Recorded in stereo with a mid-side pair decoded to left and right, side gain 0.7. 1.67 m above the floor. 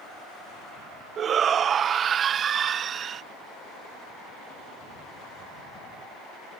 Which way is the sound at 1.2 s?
35° right.